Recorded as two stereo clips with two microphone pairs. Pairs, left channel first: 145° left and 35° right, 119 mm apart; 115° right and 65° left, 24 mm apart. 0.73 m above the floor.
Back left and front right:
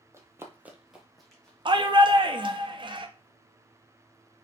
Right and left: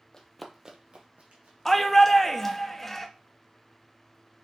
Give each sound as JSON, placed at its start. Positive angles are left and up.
{"t": 0.1, "sound": "running footsteps", "azimuth_deg": -85, "distance_m": 0.9}
{"t": 1.6, "sound": "a shout", "azimuth_deg": -45, "distance_m": 0.6}